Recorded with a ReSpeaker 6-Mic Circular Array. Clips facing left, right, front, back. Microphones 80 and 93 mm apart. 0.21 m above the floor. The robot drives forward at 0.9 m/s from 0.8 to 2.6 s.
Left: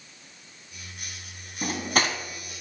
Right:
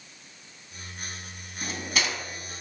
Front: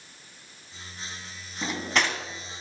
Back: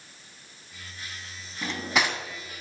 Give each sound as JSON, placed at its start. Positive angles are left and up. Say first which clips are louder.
{"t": 1.6, "sound": "cutlery clinking", "louder": "left 5 dB, even", "azimuth_deg": 70, "distance_m": 0.9}